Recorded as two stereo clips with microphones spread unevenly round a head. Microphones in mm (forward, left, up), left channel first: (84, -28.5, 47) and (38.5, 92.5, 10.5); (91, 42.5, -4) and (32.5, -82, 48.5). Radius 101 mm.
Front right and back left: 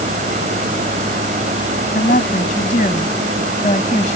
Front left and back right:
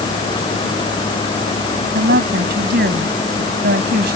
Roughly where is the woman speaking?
Behind right.